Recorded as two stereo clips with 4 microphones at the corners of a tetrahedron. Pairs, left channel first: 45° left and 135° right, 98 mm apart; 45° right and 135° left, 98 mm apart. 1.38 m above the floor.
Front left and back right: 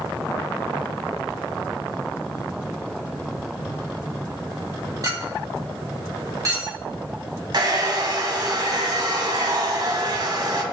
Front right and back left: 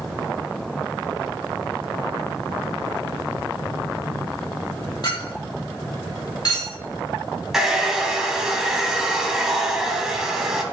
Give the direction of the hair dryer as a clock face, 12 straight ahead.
5 o'clock.